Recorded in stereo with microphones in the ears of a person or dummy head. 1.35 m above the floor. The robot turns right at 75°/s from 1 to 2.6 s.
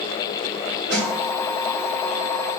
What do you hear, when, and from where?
0.9 s a snare drum: 45° right (ahead or behind), 1.6 m